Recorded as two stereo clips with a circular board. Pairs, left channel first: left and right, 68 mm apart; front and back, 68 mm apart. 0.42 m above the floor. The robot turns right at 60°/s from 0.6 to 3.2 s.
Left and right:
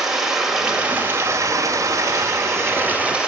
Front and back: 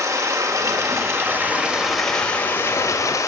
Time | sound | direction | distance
0.0 | running water | 170° right | 1.9 m